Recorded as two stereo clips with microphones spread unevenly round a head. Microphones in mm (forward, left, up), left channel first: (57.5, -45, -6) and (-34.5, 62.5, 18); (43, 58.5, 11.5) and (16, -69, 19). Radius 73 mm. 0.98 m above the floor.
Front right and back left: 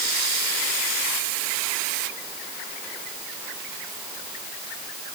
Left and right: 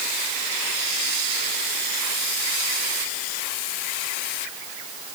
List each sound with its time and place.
Only background noise.